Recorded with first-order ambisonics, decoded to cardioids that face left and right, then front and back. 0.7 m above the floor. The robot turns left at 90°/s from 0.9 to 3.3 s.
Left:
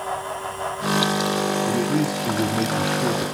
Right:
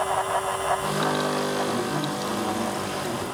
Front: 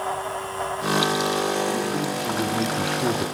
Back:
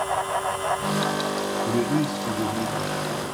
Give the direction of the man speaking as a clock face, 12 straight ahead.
7 o'clock.